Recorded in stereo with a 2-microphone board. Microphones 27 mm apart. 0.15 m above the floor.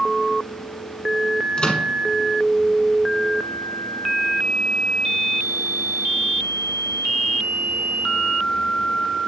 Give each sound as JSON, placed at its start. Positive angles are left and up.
{"t": 1.6, "sound": "a microwave", "side_deg": 30, "distance_m": 1.0}